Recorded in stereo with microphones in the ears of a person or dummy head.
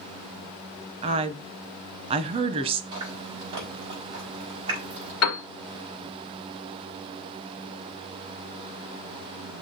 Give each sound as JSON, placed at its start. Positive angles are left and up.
{"t": 1.0, "sound": "a woman speaking", "side_deg": -30, "distance_m": 0.8}
{"t": 2.9, "sound": "chewing", "side_deg": -30, "distance_m": 3.5}
{"t": 5.2, "sound": "a piano", "side_deg": 75, "distance_m": 1.5}